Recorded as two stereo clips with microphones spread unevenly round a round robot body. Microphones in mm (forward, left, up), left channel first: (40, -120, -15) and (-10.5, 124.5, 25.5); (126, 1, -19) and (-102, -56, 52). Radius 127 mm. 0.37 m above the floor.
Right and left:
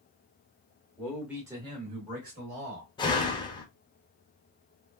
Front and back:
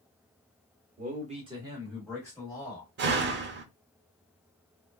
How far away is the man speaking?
About 1.1 m.